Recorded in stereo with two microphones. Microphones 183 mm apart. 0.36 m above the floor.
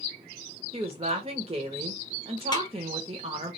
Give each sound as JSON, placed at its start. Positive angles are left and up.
{"t": 0.7, "sound": "a woman speaking", "side_deg": -30, "distance_m": 0.9}
{"t": 2.5, "sound": "a snare drum", "side_deg": 25, "distance_m": 1.1}